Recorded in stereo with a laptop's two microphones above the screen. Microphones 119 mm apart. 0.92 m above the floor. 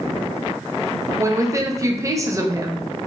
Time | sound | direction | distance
1.2 | a woman speaking | 25° right (ahead or behind) | 0.5 m